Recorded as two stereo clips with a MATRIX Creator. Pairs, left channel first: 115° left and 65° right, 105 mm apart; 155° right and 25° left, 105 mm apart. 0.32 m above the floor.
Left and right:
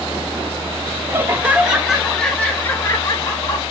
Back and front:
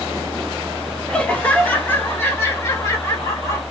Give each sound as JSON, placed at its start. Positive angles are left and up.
{"t": 1.1, "sound": "laughter", "azimuth_deg": -90, "distance_m": 1.1}